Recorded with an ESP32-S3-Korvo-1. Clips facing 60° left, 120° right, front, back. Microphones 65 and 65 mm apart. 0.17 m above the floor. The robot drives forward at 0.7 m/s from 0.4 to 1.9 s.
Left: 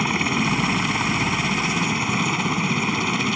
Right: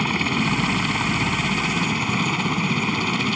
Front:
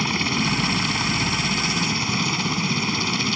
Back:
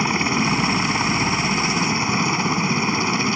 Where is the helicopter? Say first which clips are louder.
Even, back 3 dB; 140° left; by 3.4 s 145° left.